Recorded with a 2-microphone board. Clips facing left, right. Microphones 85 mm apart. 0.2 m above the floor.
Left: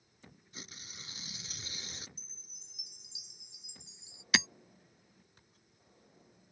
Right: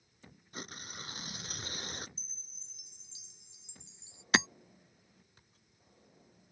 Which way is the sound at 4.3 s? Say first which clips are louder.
Right 3 dB; 35° right (ahead or behind).